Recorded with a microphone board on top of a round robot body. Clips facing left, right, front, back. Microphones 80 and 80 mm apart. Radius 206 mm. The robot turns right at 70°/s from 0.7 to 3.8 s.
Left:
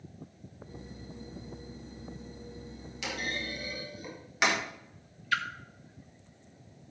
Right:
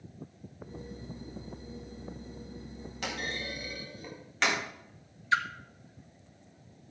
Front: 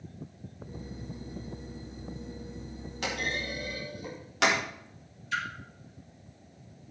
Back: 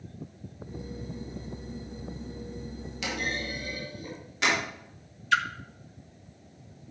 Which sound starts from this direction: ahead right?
A clunk, at 3.0 s.